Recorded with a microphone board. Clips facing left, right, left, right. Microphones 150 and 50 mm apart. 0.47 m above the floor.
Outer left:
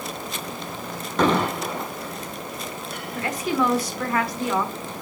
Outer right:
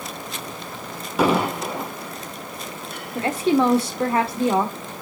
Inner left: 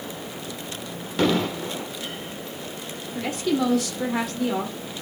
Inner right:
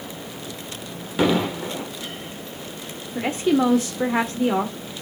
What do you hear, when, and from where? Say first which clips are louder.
1.2 s an explosion: outer right 1 dB, inner right 2 dB; 10° right (ahead or behind), 1.6 m
3.1 s a woman speaking: outer right 5 dB, inner right 4 dB; 30° right (ahead or behind), 1.5 m